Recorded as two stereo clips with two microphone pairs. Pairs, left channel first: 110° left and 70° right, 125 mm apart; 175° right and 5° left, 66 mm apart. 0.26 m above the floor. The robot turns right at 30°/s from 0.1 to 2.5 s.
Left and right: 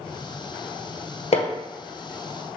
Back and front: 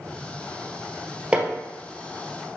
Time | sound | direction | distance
1.3 | hammering | 80° left | 1.2 m